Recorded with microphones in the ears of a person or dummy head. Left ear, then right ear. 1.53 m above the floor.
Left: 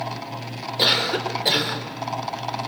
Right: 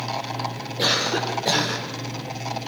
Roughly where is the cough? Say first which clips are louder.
Left 2 dB; left.